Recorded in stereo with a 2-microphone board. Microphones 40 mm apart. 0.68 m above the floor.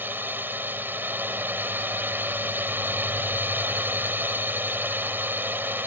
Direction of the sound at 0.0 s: 60° right (ahead or behind).